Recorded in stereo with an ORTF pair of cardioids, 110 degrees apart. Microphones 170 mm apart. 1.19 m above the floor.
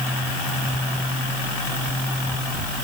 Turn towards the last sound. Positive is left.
No sound to turn to.